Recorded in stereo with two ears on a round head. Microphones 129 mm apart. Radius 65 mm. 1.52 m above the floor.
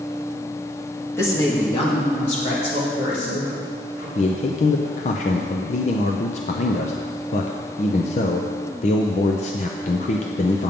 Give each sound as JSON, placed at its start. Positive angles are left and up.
{"t": 1.2, "sound": "a woman speaking", "side_deg": 20, "distance_m": 1.6}
{"t": 4.2, "sound": "a man speaking", "side_deg": 50, "distance_m": 0.6}